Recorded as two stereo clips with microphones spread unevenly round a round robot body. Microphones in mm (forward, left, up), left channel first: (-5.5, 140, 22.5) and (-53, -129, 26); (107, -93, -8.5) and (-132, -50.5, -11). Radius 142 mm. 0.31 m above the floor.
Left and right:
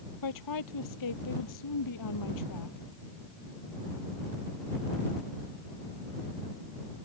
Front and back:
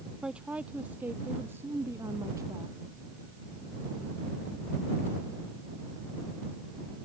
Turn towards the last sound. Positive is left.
turn(degrees=90)